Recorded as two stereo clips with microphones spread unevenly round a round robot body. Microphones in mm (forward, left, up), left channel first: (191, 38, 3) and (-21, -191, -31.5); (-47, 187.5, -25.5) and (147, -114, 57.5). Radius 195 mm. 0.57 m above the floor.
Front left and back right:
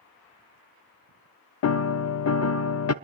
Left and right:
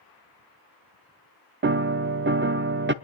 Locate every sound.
1.6 s a piano: 10° left, 0.7 m